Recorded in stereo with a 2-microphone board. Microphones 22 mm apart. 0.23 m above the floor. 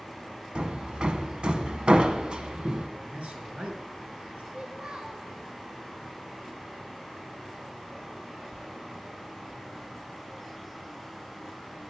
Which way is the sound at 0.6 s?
50° right (ahead or behind).